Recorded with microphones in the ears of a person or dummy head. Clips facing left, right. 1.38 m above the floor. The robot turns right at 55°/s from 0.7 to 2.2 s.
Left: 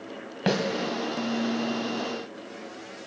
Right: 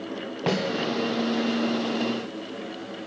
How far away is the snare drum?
About 2.5 m.